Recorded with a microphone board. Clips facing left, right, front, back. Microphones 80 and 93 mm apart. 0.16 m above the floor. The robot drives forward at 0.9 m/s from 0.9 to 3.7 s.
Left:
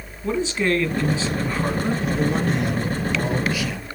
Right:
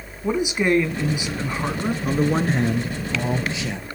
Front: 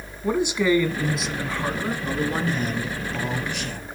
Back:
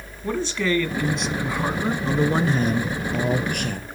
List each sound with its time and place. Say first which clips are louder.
0.2 s a man speaking: right 1 dB, front 3 dB; 50° right, 1.4 m; by 1.9 s 150° right, 1.5 m
2.0 s a man speaking: right 4 dB, back 5 dB; 120° right, 1.4 m; by 3.9 s 155° right, 2.5 m